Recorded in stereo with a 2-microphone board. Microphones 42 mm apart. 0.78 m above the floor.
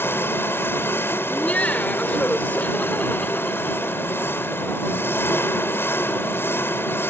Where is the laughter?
35° left (ahead or behind).